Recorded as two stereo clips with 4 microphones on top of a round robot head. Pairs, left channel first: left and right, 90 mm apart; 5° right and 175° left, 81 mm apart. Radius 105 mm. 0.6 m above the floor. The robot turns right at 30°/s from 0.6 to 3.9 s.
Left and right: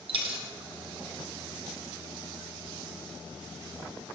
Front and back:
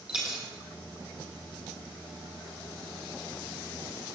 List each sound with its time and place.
0.1 s a dropped coin: 100° right, 1.2 m